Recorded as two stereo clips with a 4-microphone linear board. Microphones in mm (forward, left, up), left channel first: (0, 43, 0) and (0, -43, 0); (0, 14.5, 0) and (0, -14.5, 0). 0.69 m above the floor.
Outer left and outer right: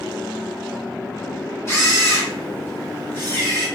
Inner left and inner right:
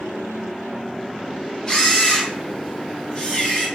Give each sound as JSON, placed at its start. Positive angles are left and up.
{"t": 1.7, "sound": "a camera shutter", "side_deg": 30, "distance_m": 1.2}